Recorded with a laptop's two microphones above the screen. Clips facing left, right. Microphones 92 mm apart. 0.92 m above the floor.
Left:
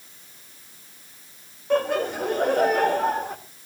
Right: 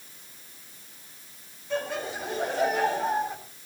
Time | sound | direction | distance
1.7 | laughter | 60° left (ahead or behind) | 4 m